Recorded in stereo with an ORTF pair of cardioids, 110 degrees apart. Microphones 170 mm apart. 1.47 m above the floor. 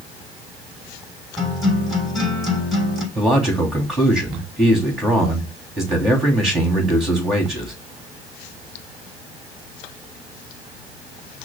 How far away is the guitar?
About 3.5 m.